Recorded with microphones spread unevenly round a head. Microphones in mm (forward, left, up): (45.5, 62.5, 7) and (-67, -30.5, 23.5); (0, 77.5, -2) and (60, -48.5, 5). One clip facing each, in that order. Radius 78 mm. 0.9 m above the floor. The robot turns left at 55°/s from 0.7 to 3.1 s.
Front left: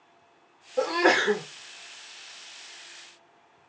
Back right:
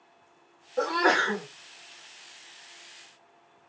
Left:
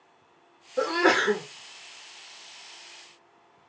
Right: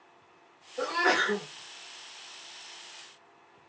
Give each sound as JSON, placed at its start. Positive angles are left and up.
{"t": 0.8, "sound": "a sneeze", "azimuth_deg": 120, "distance_m": 0.8}